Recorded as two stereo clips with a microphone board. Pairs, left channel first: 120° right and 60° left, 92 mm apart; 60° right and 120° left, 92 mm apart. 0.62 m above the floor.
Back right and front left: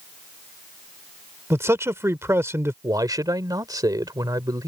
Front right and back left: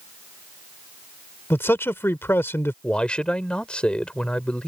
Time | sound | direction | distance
1.5 | a man speaking | straight ahead | ?
2.8 | a man speaking | 15° left | ?